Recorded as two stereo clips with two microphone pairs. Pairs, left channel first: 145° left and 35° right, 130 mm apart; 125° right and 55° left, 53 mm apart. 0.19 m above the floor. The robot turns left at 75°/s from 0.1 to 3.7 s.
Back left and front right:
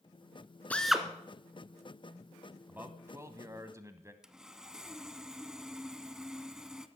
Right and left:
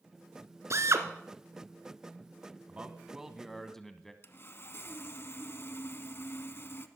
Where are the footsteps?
I don't hear footsteps.